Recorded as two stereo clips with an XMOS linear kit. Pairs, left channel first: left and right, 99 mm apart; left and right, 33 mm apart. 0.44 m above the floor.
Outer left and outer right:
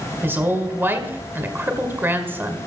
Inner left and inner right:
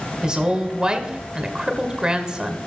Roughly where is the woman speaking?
Right.